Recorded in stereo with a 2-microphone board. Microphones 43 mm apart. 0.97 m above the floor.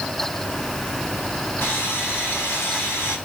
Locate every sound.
1.6 s sawing: 55° left (ahead or behind), 4.5 m